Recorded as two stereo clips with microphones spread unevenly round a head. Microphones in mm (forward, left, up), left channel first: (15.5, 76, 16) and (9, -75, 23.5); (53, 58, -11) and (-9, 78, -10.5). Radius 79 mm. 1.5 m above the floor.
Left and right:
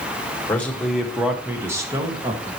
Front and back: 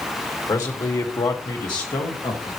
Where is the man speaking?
10° left, 2.0 m; by 2.5 s 35° right, 2.5 m.